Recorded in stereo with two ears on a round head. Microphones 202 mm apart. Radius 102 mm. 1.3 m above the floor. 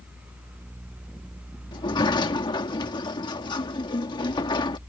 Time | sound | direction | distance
1.7 | a sliding door | 20° left (ahead or behind) | ?